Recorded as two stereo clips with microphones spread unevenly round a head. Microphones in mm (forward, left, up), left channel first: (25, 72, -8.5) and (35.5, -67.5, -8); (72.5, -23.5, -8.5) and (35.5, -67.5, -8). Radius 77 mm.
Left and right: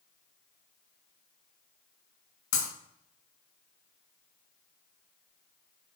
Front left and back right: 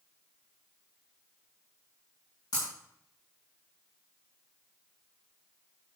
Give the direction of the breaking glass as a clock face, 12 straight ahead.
9 o'clock.